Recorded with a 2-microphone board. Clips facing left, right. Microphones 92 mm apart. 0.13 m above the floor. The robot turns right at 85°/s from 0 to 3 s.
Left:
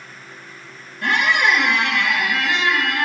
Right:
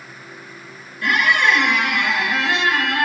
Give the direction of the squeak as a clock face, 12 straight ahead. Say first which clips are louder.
Right 1 dB; 8 o'clock.